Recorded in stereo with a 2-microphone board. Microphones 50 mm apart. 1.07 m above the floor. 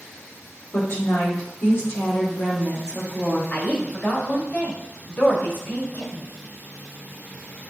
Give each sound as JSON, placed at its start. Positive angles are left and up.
{"t": 0.7, "sound": "a woman speaking", "side_deg": 80, "distance_m": 2.0}
{"t": 3.5, "sound": "a woman speaking", "side_deg": 40, "distance_m": 1.6}